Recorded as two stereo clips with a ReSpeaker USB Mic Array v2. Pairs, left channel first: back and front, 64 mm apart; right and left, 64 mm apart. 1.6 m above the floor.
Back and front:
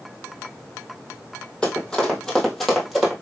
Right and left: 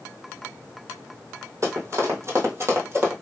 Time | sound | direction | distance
1.6 | running footsteps | 105° left | 2.5 m